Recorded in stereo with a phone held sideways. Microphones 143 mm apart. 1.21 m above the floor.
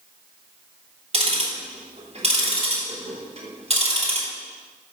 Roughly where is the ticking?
Right.